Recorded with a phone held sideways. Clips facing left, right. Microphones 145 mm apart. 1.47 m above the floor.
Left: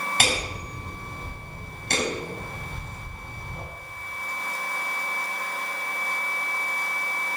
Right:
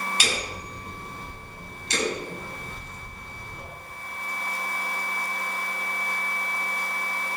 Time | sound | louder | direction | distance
0.2 | hammering | left 3 dB | 60° left (ahead or behind) | 7.5 m